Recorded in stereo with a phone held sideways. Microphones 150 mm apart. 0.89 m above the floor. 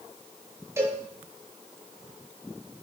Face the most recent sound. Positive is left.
turn(degrees=-20)  # may be behind; listen again after turning